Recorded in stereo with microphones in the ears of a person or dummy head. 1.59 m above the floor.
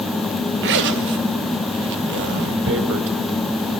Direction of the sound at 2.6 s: 65° right (ahead or behind).